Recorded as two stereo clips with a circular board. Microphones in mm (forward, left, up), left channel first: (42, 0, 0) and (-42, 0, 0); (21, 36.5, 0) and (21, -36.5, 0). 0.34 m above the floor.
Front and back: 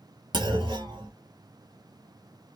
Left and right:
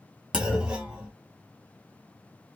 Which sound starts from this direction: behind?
A clunk, at 0.3 s.